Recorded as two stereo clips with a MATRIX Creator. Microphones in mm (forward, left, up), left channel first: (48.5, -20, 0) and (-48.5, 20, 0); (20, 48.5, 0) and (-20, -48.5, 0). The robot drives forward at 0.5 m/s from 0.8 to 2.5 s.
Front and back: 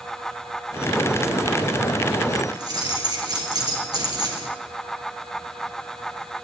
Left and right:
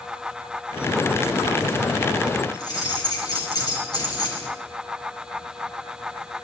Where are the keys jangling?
110° left, 4 m.